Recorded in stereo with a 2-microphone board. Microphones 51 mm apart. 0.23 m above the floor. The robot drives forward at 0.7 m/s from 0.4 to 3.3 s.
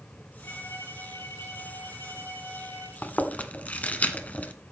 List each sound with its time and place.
0.4 s a violin: 65° left (ahead or behind), 5 m; by 2.9 s 80° left, 4.5 m
3.0 s chewing: 35° left (ahead or behind), 1.3 m; by 4.5 s 30° left (ahead or behind), 1.4 m